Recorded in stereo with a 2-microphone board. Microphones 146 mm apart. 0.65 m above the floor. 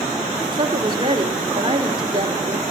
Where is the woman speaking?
35° right (ahead or behind), 2.5 m.